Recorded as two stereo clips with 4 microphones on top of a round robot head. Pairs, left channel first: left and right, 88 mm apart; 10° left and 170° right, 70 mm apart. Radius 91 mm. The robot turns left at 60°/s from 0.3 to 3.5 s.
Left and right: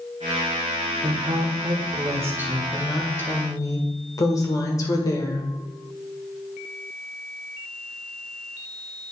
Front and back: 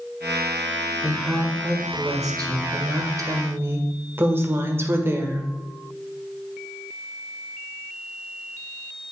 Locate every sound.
1.0 s a woman speaking: 75° right, 1.7 m; by 5.5 s 135° left, 1.7 m